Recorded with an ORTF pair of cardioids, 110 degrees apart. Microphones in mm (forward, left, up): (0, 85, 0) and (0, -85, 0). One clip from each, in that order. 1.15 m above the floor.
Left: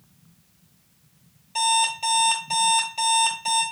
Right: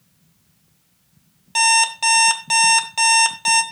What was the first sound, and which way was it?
An alarm clock, 70° right.